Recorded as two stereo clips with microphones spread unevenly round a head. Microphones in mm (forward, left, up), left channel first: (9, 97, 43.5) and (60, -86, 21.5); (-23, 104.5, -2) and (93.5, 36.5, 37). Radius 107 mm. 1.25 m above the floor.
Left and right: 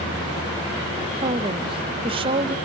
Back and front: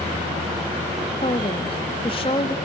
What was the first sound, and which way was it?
A woman speaking, 140° right.